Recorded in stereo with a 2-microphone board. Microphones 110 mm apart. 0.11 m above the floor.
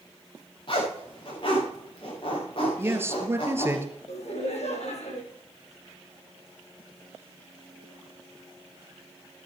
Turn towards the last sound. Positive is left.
turn(degrees=75)  # may be behind; listen again after turning